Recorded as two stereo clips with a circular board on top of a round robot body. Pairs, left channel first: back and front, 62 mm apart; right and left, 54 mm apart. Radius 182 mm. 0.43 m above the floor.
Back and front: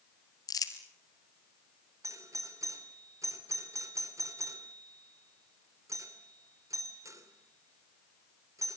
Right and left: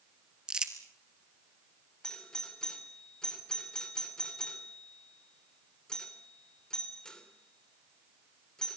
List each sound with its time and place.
0.5 s crumpling: 165° left, 1.9 m
2.0 s a doorbell: 15° right, 3 m